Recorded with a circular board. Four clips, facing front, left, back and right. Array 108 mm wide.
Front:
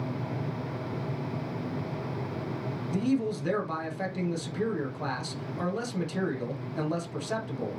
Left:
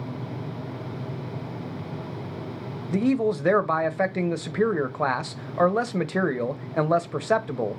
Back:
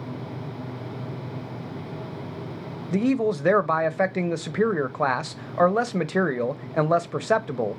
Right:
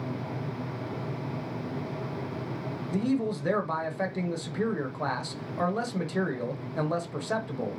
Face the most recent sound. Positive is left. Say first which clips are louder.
# left 6 dB, back 6 dB
turn(degrees=150)